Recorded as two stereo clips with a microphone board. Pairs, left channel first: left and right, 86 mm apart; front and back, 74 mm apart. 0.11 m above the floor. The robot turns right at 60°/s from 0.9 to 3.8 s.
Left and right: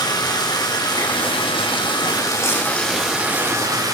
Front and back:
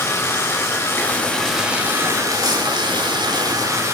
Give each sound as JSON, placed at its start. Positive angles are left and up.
{"t": 0.0, "sound": "running water", "azimuth_deg": 55, "distance_m": 7.5}